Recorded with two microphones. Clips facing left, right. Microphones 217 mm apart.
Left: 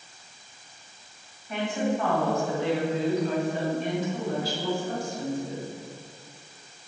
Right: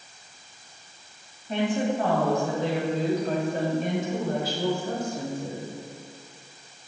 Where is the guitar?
No guitar in this recording.